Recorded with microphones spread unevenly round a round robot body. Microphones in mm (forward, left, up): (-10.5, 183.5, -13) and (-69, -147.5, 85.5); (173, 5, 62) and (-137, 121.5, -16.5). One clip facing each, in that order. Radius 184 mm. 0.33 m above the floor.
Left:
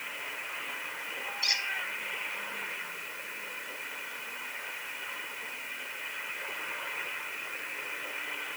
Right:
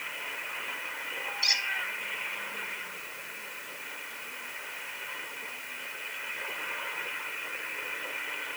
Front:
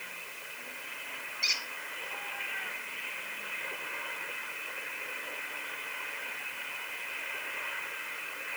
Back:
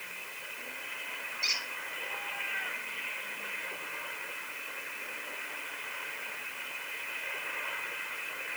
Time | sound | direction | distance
1.4 | a squeak | 55° right | 1.8 m